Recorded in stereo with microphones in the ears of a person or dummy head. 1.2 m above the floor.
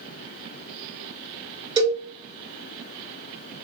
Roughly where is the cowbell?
Right.